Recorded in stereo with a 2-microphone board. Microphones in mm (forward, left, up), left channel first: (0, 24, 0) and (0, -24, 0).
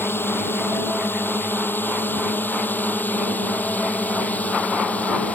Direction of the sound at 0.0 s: 55° left (ahead or behind).